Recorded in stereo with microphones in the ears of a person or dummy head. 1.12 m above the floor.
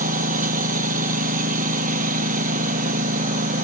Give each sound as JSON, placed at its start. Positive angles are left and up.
{"t": 0.0, "sound": "a lawn mower", "side_deg": -45}